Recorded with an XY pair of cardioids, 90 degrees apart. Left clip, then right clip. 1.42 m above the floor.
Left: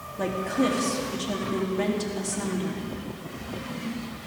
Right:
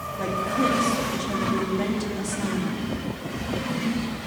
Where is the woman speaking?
20° left, 3.5 m.